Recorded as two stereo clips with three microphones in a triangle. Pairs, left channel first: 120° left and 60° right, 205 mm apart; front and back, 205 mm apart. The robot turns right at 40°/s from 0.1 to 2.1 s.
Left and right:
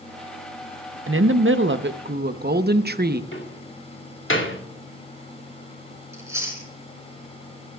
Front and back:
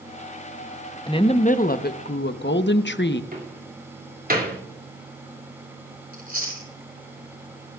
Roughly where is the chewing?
Behind right.